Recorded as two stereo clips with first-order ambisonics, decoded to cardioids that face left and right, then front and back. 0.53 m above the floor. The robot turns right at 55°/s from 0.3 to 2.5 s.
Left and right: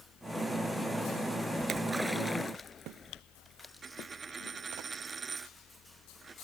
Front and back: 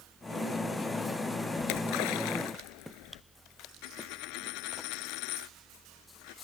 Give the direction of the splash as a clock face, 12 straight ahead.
1 o'clock.